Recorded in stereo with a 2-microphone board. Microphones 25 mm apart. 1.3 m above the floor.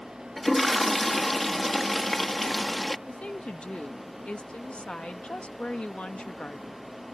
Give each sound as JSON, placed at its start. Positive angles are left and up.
{"t": 0.4, "sound": "a toilet flushing", "side_deg": 10}
{"t": 3.1, "sound": "a woman speaking", "side_deg": 60}